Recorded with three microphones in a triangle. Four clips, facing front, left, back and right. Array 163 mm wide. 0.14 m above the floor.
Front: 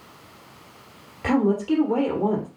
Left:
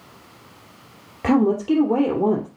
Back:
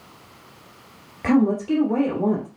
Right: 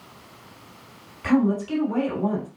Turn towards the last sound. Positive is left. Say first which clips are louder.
# left 3 dB, back 2 dB
turn(degrees=100)